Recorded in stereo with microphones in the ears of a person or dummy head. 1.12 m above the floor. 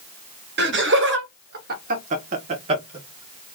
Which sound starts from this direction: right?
Laughter, at 0.6 s.